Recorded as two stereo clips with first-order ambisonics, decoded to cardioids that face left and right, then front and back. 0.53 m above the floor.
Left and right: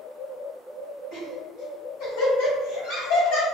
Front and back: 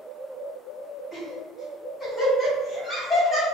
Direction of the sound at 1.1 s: 75° left.